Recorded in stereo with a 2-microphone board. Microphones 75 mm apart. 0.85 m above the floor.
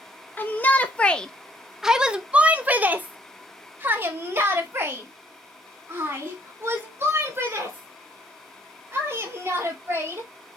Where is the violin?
No violin in this recording.